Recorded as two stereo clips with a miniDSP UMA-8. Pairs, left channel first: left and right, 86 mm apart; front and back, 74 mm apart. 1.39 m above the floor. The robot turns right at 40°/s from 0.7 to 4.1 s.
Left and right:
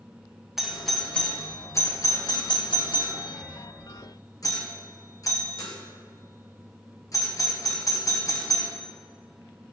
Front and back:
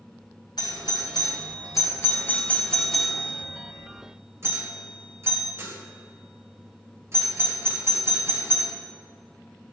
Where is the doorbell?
5° right, 1.7 m; by 8.7 s 135° left, 1.7 m.